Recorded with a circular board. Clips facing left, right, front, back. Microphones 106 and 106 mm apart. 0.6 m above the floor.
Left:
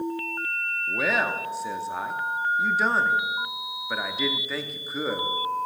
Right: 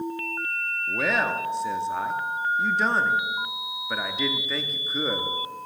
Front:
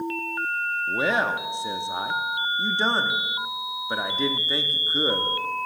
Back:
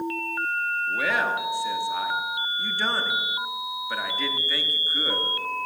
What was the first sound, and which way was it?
A man speaking, 5° left.